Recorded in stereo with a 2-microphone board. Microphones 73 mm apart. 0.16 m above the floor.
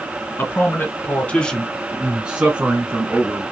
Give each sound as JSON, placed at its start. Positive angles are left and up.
{"t": 0.4, "sound": "a man speaking", "side_deg": 30, "distance_m": 1.9}